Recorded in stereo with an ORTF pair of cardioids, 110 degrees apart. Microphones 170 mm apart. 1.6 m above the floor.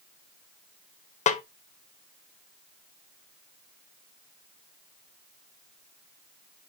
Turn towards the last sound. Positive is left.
turn(degrees=45)